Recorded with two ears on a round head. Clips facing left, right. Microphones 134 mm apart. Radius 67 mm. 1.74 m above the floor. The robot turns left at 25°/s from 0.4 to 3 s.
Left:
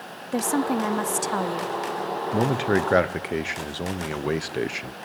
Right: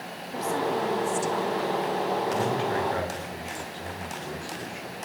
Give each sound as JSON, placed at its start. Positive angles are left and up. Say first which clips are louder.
{"t": 0.3, "sound": "a woman speaking", "louder": "left 4 dB", "azimuth_deg": 115, "distance_m": 0.8}
{"t": 2.3, "sound": "a man speaking", "louder": "left 4 dB", "side_deg": 60, "distance_m": 1.2}